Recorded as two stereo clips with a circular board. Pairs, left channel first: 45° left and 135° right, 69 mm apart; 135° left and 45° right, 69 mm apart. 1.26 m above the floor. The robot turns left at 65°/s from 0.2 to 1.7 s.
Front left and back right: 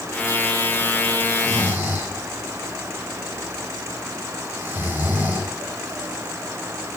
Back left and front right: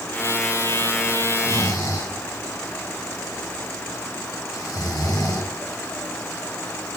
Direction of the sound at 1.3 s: 175° right.